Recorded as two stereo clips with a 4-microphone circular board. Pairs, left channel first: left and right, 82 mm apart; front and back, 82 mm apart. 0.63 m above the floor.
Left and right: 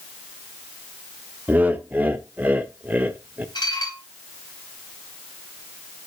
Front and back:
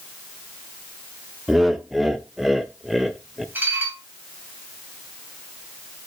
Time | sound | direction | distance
1.5 | laughter | 100° right | 0.5 m
3.5 | dishes clattering | 115° left | 2.5 m